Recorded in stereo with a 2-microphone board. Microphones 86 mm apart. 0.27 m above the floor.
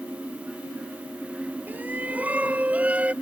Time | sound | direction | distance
1.7 | a shout | 20° right (ahead or behind) | ?